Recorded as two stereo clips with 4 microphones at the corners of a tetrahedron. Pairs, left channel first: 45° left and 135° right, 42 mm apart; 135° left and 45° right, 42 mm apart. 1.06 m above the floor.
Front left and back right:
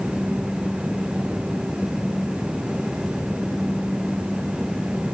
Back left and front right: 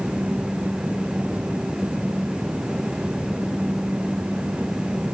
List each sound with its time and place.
Only background noise.